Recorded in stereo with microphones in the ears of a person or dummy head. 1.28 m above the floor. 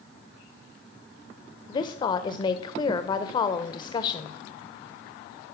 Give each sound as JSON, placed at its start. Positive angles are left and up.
{"t": 1.7, "sound": "a woman speaking", "side_deg": 20, "distance_m": 1.1}